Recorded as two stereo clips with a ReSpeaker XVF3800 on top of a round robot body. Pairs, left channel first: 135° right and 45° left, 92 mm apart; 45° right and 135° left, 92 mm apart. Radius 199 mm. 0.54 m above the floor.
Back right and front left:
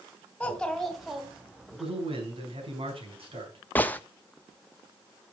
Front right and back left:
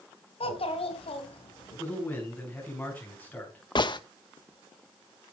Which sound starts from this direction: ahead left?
A man speaking, at 1.8 s.